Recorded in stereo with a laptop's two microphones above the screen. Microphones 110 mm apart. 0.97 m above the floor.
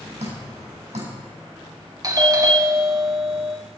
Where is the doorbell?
35° right (ahead or behind), 1.3 m.